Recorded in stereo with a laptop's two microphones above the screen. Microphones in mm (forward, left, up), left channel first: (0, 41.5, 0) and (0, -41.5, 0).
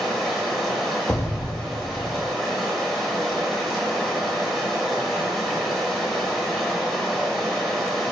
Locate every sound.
0.0 s running water: centre (ahead or behind), 0.8 m
1.1 s an explosion: 25° left (ahead or behind), 0.5 m